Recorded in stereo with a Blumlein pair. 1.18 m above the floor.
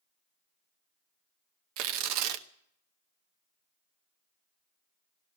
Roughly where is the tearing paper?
Ahead right.